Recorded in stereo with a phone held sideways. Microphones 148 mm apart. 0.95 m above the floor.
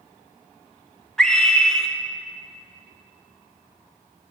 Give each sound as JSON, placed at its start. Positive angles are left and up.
{"t": 1.2, "sound": "a scream", "side_deg": 5, "distance_m": 0.9}